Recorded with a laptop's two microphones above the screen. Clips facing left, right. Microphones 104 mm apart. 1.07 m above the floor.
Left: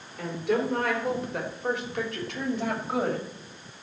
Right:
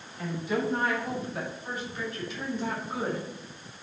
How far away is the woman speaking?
About 4 m.